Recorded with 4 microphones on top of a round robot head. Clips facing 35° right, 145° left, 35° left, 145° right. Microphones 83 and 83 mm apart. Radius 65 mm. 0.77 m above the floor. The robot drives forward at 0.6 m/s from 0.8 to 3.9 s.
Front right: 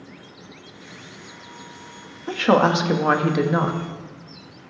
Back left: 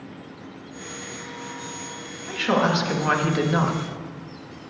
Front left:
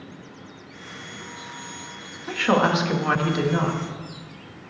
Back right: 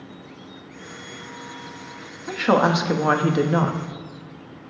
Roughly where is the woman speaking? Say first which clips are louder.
Front right 4 dB, back right 2 dB; ahead right.